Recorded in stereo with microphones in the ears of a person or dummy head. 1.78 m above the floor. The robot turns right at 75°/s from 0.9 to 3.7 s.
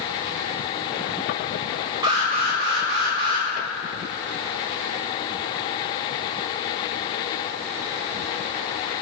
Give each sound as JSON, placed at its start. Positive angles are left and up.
{"t": 2.0, "sound": "an alarm", "azimuth_deg": -155, "distance_m": 1.4}